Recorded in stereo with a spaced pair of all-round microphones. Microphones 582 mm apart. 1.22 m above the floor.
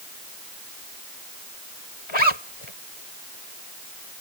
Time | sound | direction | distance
2.1 | a zipper | 55° left (ahead or behind) | ?